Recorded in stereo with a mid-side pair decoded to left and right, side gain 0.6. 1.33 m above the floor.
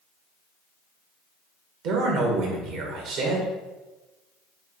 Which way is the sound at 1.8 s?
70° right.